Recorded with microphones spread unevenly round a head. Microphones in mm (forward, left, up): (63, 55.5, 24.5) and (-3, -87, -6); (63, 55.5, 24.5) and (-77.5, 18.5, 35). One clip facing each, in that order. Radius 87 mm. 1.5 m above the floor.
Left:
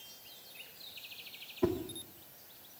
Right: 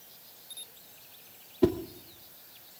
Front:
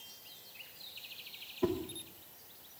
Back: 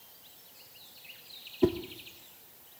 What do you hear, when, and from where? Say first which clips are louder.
1.6 s a whoosh: right 7 dB, back 6 dB; 160° right, 0.8 m